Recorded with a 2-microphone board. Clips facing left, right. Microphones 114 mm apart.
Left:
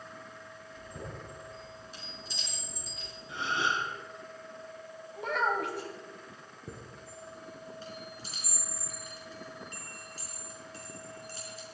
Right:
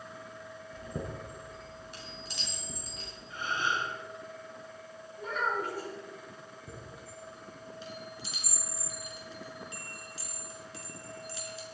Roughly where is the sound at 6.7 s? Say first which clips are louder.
Left 3 dB; left.